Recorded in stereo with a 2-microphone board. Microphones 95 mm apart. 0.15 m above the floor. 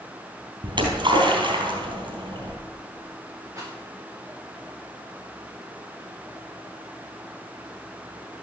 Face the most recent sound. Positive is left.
turn(degrees=-30)  # may be behind; listen again after turning